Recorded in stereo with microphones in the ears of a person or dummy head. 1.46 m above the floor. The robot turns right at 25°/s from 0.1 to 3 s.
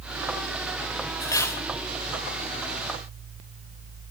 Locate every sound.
1.2 s cutlery clinking: 20° left (ahead or behind), 1.3 m; by 1.6 s 10° left (ahead or behind), 1.3 m